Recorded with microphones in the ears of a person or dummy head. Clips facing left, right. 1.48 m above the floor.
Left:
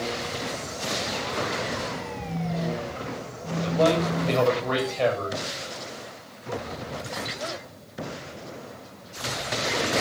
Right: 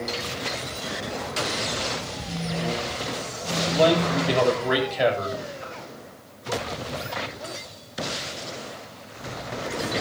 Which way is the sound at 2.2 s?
5° right (ahead or behind).